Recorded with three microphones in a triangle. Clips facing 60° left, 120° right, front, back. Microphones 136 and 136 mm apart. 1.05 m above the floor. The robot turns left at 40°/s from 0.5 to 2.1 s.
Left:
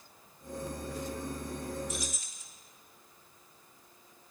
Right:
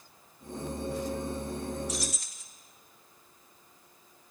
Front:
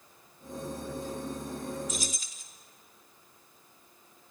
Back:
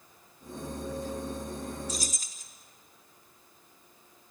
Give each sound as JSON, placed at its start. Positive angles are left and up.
{"t": 1.9, "sound": "keys jangling", "azimuth_deg": -125, "distance_m": 1.6}